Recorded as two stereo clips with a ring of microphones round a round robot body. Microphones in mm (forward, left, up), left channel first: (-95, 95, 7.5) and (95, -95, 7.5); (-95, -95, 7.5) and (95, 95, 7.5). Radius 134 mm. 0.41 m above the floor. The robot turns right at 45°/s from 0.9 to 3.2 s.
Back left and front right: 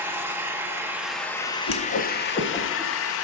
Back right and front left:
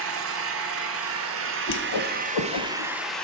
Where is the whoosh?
175° left, 0.9 m; by 2.9 s 130° right, 0.9 m.